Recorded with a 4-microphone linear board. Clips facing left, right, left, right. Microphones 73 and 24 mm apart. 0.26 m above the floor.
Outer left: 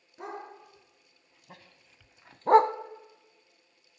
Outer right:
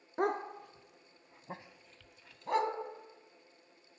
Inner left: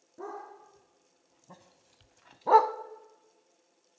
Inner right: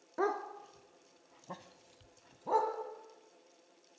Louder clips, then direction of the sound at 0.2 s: Outer right 8 dB, inner right 8 dB; 65° right (ahead or behind).